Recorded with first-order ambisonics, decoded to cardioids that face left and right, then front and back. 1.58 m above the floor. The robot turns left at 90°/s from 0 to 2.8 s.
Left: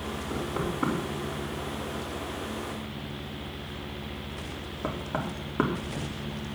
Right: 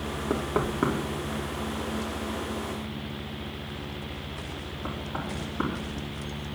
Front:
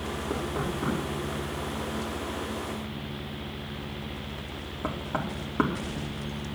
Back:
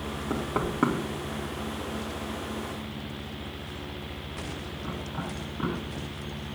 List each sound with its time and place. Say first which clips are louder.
0.3 s knocking: right 5 dB, back 3 dB; 95° right, 3 m; by 6.2 s 40° left, 3 m